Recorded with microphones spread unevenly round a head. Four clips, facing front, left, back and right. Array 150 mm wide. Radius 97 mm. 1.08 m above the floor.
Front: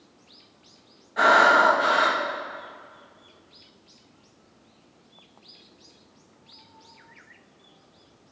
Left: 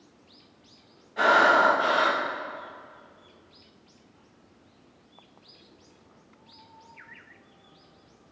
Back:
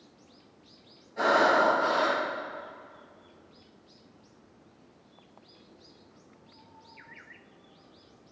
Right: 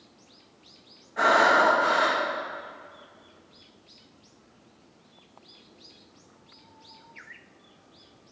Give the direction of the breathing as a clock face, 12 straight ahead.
12 o'clock.